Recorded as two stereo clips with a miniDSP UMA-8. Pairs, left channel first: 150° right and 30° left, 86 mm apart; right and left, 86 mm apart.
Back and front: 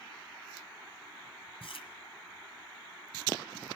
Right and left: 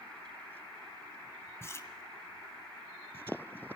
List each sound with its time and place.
1.6 s chewing: 150° right, 1.8 m